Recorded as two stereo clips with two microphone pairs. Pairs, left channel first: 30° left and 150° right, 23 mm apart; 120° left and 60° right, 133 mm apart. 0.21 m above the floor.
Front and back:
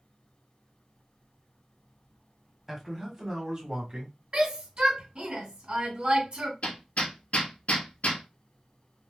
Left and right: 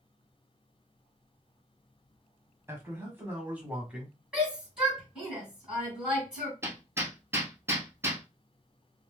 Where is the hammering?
10° left, 1.0 m.